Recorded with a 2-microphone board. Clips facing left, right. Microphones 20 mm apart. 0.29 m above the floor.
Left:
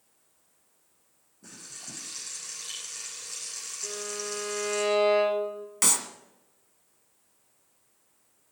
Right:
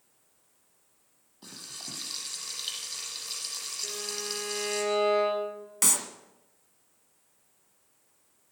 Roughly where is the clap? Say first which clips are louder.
Left 1 dB; centre.